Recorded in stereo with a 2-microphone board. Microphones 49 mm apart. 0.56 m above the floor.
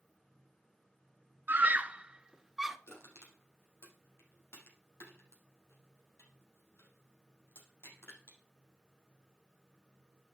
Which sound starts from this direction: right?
A scream, at 1.5 s.